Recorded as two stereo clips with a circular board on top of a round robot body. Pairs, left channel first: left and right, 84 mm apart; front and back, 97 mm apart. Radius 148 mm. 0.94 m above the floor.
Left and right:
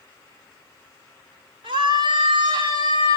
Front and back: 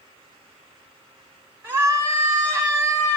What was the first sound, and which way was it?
A scream, 110° right.